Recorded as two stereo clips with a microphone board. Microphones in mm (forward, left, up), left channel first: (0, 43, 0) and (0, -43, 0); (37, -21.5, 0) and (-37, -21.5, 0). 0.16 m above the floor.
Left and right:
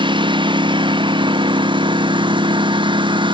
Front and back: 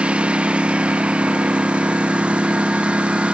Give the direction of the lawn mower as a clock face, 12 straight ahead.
3 o'clock.